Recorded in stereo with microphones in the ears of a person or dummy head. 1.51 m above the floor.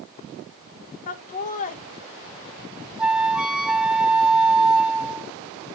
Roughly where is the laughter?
Left.